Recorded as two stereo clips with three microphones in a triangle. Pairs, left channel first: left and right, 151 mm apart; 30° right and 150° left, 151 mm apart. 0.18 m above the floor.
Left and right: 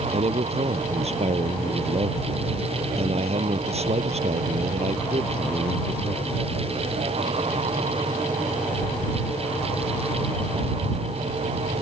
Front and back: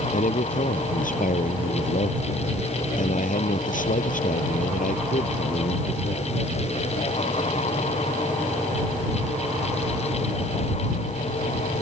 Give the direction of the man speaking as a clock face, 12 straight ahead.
2 o'clock.